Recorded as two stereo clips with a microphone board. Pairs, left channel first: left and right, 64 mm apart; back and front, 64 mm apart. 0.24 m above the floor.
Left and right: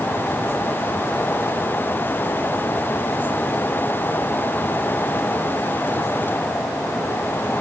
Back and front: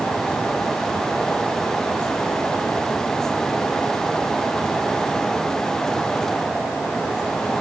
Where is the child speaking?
I don't hear a child speaking.